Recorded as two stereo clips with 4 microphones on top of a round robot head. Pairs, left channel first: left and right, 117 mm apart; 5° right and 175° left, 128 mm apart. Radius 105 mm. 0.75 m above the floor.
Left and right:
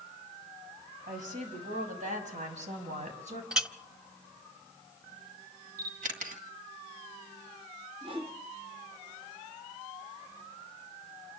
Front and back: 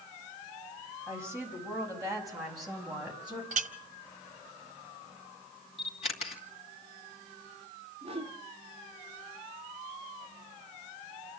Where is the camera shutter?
60° right, 2 m.